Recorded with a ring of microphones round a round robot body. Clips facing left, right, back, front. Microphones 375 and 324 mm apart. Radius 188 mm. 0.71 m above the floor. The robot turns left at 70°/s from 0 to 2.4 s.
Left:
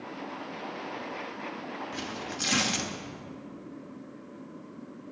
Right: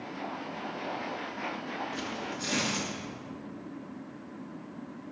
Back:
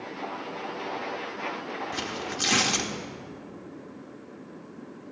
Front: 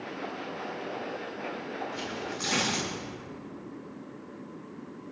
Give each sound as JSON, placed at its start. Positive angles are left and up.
{"t": 1.9, "sound": "tearing paper", "azimuth_deg": 170, "distance_m": 1.8}